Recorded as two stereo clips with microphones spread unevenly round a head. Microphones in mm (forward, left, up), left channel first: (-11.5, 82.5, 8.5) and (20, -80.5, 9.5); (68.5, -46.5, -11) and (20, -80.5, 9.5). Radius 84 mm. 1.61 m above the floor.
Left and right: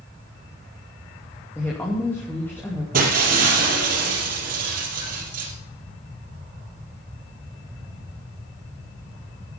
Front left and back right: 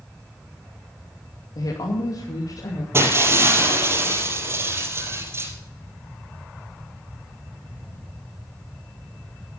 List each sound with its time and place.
1.6 s a woman speaking: 25° left, 2.5 m
2.9 s breaking glass: 115° right, 4 m